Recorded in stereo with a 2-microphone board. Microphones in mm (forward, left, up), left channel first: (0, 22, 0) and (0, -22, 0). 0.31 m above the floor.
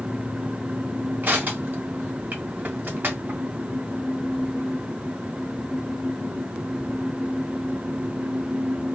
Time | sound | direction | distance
1.2 | crushing | 50° right (ahead or behind) | 1.7 m